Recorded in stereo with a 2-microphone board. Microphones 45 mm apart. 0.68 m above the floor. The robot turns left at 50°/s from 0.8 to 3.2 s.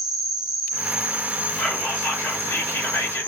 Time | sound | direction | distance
0.0 | an insect | 15° right | 0.9 m
1.6 | whispering | 150° left | 1.8 m